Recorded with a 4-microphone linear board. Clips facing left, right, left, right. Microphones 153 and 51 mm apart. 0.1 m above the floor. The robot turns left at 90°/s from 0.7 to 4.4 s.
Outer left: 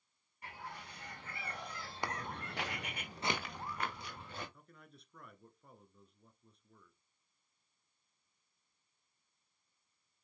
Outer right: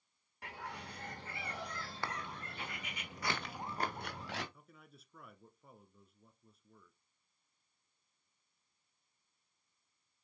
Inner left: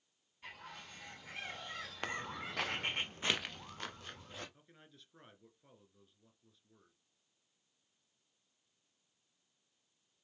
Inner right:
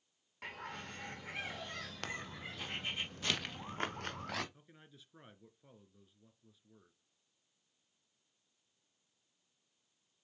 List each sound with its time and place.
0.4 s a bird: 95° right, 4.5 m; by 3.0 s 55° left, 4.5 m
2.0 s footsteps: 15° left (ahead or behind), 1.4 m; by 4.4 s 85° right, 2.5 m
4.5 s a man speaking: 5° right (ahead or behind), 1.1 m